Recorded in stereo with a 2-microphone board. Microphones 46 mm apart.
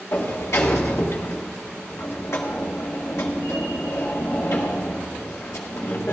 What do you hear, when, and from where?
0.1 s a sliding door: 75° left (ahead or behind), 1.6 m